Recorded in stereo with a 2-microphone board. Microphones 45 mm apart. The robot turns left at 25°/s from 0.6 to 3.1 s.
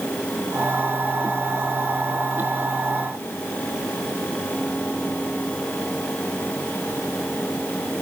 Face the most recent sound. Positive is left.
No sound to turn to.